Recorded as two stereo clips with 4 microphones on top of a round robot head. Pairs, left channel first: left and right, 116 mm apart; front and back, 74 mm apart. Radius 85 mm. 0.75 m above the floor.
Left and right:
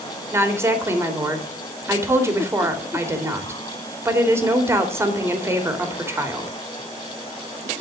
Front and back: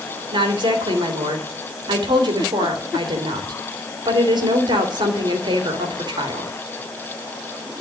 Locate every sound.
0.3 s a woman speaking: 155° right, 3 m